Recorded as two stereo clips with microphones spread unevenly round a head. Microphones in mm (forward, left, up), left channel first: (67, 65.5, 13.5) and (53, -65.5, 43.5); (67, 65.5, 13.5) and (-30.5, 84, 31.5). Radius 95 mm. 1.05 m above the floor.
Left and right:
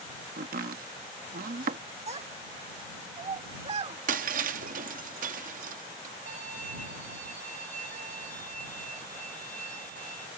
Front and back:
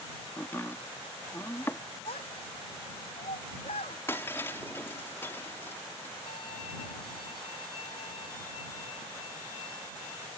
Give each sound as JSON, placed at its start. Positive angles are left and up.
{"t": 0.4, "sound": "chopping", "azimuth_deg": -90}
{"t": 2.1, "sound": "a child speaking", "azimuth_deg": -60}
{"t": 4.1, "sound": "breaking glass", "azimuth_deg": -90}
{"t": 6.3, "sound": "a violin", "azimuth_deg": -75}